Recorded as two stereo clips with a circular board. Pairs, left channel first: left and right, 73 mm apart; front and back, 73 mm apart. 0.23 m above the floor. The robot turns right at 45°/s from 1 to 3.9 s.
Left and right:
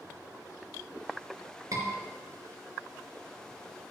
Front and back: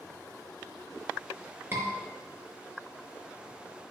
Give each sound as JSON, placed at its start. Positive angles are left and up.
{"t": 1.7, "sound": "a scream", "azimuth_deg": -125, "distance_m": 3.5}